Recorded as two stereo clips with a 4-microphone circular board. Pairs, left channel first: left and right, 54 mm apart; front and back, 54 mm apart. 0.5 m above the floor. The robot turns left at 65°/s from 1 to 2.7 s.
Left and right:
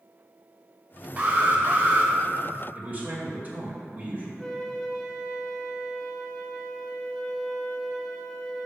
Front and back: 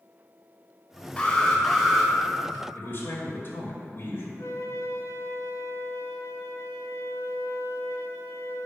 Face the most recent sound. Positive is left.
turn(degrees=10)